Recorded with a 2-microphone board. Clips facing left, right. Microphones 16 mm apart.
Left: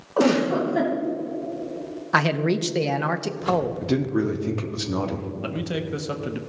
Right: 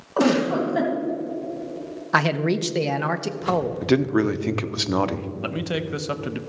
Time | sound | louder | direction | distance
0.2 | a giggle | even | 15° right (ahead or behind) | 2 m
2.1 | a man speaking | even | 5° right (ahead or behind) | 0.5 m
3.8 | a man speaking | right 3 dB | 45° right (ahead or behind) | 0.6 m
5.4 | a man speaking | right 2 dB | 15° right (ahead or behind) | 0.6 m